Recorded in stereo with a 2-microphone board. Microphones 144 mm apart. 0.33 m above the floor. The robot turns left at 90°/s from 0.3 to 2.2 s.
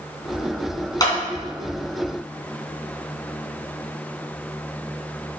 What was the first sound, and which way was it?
A clap, 25° left (ahead or behind).